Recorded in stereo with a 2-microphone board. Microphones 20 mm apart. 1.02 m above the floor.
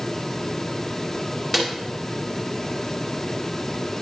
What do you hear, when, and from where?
1.5 s a snare drum: centre (ahead or behind), 2.5 m